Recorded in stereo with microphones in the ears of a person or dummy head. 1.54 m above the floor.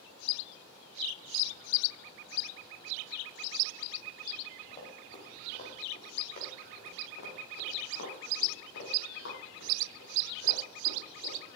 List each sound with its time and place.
4.7 s running footsteps: 35° left (ahead or behind), 5 m; by 11.4 s 80° left, 12 m